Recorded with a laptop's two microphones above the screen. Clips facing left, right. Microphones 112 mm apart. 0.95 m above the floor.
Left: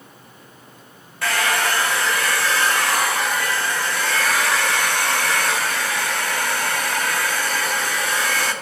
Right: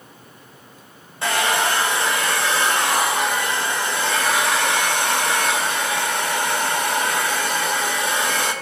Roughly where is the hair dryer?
Right.